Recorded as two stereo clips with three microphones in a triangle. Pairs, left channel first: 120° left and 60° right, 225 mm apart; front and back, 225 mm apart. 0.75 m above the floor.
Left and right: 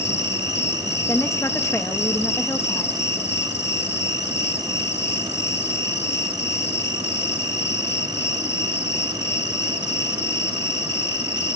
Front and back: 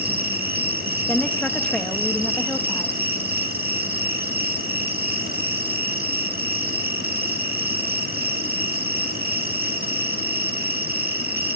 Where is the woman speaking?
70° left, 0.7 m.